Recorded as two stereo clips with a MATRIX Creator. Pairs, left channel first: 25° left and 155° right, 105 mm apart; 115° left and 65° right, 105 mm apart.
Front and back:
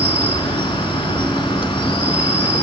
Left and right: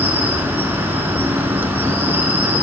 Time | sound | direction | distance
0.0 | an insect | straight ahead | 1.0 m